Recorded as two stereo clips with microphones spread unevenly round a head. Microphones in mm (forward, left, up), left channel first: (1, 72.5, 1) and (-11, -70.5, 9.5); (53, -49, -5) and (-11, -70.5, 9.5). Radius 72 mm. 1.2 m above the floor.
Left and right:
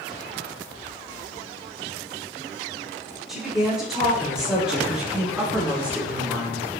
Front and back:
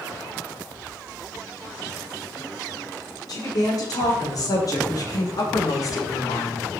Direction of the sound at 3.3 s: 5° right.